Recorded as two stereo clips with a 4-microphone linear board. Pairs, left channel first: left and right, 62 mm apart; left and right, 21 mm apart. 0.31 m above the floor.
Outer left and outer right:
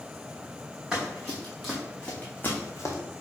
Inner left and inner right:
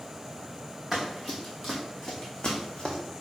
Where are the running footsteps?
10° right (ahead or behind), 2 m; by 3.0 s 55° left (ahead or behind), 1.2 m.